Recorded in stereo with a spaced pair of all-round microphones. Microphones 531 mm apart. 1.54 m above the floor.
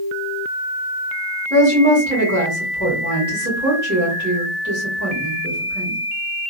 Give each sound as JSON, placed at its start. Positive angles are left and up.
{"t": 1.5, "sound": "a woman speaking", "side_deg": -30, "distance_m": 1.7}